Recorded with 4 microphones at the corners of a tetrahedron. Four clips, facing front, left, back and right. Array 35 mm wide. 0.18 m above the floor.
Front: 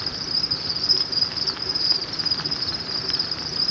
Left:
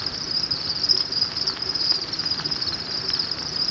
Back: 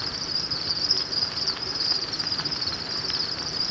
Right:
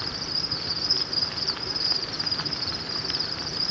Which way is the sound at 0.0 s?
80° left.